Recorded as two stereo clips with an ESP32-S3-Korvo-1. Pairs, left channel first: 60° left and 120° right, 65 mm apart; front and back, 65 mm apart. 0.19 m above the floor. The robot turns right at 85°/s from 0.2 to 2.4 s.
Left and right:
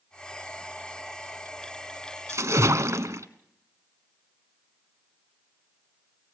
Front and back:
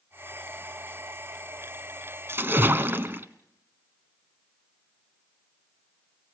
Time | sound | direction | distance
2.3 | a splash | 145° right | 1.3 m